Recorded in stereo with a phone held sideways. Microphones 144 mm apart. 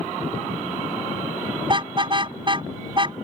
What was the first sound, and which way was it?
A car horn, 35° right (ahead or behind).